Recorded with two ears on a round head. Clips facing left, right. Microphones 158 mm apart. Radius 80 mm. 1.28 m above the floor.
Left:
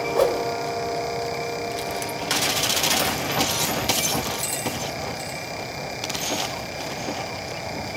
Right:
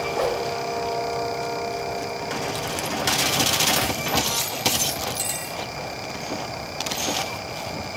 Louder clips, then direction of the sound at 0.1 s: Left 5 dB; 55° left (ahead or behind).